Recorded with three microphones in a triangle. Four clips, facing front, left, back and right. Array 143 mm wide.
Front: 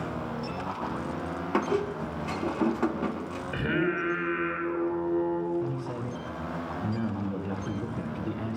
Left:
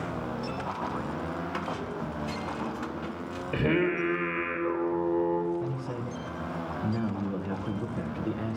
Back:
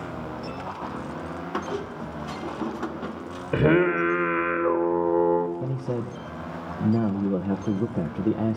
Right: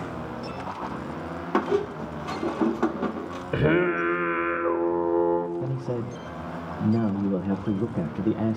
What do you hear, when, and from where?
1.5 s a squeak: 70° right, 1.7 m
3.5 s singing: 160° right, 3 m
5.6 s a man speaking: 150° right, 1.4 m